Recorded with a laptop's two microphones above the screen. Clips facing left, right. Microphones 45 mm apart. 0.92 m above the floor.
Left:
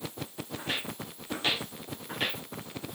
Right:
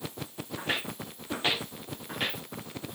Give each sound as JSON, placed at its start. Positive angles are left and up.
{"t": 0.6, "sound": "footsteps", "side_deg": -40, "distance_m": 3.5}